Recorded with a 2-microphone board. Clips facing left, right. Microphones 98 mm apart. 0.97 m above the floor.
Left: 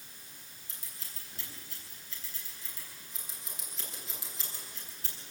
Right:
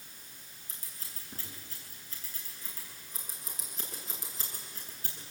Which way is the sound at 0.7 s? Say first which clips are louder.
Right 1 dB; 40° right (ahead or behind).